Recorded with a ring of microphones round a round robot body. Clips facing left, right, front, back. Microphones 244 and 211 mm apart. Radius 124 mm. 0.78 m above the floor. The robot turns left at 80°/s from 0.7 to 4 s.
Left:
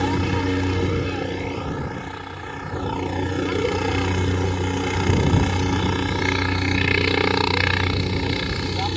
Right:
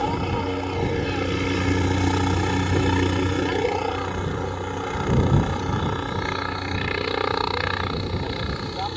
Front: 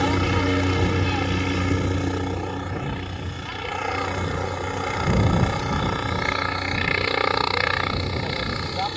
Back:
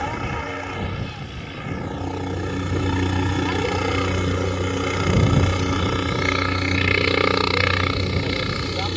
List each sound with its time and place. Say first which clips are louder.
0.0 s a helicopter: left 3 dB, front 7 dB; 35° left; by 9.0 s 130° left